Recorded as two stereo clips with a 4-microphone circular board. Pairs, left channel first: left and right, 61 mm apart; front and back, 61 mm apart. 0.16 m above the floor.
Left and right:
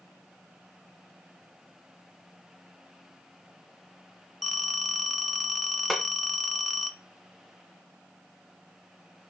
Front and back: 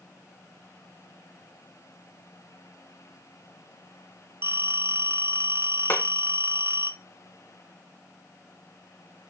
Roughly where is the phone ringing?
Behind.